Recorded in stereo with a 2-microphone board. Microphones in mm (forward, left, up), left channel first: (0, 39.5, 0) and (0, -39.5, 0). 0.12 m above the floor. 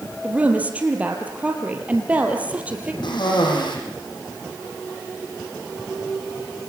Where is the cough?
75° left (ahead or behind), 6 m.